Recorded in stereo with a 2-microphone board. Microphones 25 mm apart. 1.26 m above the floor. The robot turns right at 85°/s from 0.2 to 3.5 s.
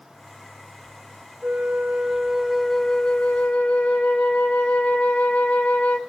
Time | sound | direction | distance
1.4 | a flute | 95° right | 0.6 m